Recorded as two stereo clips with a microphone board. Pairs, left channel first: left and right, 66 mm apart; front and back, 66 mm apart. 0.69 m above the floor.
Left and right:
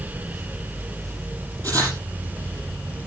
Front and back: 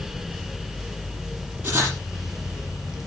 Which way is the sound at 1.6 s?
120° right.